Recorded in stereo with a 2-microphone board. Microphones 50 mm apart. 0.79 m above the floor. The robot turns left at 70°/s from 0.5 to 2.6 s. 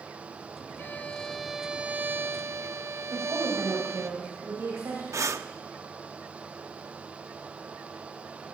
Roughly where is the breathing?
Right.